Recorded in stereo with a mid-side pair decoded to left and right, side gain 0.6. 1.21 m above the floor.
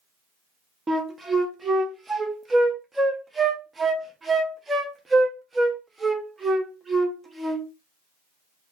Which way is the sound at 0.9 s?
20° right.